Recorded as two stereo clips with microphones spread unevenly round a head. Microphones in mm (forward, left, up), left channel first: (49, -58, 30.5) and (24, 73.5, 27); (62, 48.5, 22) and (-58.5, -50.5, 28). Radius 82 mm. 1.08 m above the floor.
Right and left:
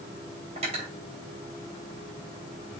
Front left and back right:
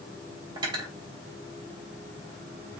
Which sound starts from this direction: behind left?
Cutlery clinking, at 0.6 s.